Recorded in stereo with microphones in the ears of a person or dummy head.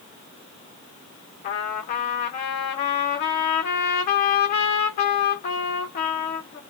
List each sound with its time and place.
1.4 s a trumpet: 45° left (ahead or behind), 1.1 m